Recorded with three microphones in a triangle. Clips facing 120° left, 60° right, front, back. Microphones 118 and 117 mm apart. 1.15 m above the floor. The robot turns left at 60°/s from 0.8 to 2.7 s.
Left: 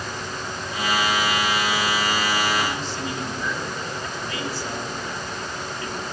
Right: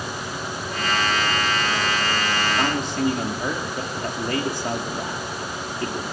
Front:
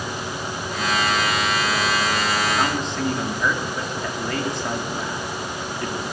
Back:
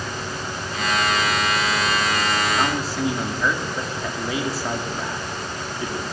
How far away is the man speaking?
About 2.5 m.